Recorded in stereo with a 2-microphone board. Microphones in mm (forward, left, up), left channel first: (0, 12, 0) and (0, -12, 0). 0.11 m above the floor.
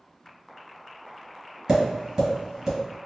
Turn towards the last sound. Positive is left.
turn(degrees=-25)  # may be behind; listen again after turning